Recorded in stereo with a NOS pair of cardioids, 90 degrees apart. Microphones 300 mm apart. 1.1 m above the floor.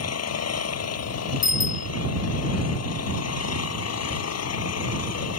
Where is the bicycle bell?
65° left.